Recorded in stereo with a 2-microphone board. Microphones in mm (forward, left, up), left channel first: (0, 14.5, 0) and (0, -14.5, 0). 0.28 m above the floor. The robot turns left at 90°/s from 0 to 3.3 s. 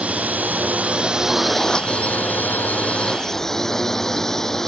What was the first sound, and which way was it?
A drone, 50° right.